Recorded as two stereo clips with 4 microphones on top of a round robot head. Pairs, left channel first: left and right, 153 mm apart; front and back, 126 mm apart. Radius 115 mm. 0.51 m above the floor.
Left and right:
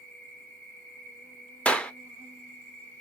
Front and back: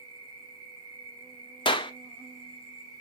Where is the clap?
10° left, 0.5 m.